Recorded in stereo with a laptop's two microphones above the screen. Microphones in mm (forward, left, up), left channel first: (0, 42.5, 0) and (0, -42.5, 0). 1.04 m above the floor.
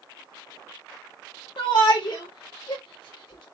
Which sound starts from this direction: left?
A shout, at 1.6 s.